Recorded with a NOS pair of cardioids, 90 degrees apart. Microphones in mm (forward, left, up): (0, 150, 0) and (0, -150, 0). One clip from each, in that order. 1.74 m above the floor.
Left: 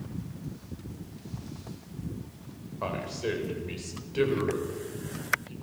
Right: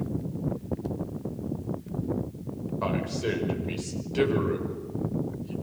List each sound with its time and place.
2.8 s a man speaking: 15° right, 5.5 m